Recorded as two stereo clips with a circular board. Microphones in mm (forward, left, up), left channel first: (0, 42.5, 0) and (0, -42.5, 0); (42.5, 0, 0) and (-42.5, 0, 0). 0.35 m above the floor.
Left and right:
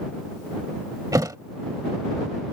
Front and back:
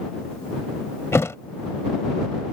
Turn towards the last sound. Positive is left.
turn(degrees=-55)